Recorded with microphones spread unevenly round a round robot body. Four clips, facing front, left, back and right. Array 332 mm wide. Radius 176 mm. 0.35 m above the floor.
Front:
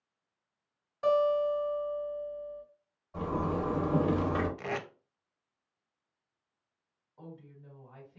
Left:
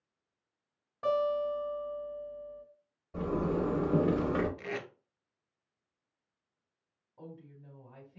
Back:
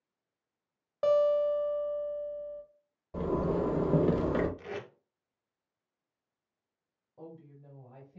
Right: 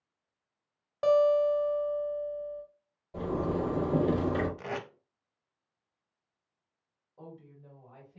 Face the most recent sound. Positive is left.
turn(degrees=175)